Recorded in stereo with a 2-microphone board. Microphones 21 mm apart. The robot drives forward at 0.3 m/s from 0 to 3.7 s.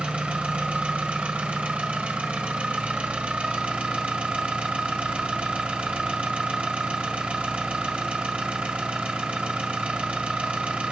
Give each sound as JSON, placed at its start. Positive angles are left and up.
{"t": 0.0, "sound": "an engine running", "side_deg": -65, "distance_m": 1.8}